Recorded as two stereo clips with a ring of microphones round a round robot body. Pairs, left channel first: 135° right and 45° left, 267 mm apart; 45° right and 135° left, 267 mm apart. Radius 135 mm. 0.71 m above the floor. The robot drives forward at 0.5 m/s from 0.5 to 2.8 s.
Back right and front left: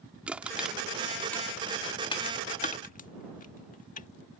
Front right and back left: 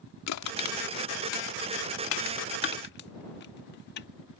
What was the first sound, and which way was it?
Crushing, 40° right.